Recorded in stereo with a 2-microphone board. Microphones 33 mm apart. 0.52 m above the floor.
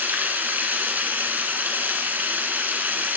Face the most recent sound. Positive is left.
turn(degrees=-70)  # may be behind; listen again after turning